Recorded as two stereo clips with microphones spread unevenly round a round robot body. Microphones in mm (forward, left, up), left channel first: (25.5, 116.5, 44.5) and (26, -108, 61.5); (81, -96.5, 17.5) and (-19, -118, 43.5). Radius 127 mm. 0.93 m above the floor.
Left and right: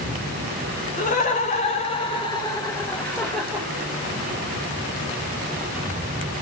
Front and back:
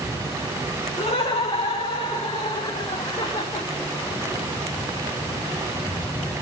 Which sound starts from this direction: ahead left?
Laughter, at 1.0 s.